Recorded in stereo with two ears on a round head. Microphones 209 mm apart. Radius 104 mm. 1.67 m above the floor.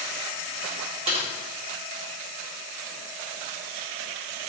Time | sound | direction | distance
1.1 | typing on a keyboard | 25° right (ahead or behind) | 1.7 m